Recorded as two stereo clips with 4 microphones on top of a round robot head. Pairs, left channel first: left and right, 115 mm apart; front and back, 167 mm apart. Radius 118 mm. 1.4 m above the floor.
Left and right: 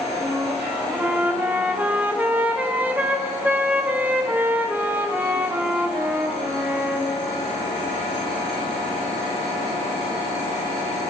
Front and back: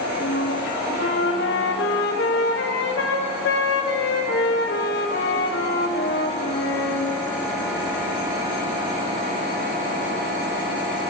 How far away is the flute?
About 0.8 m.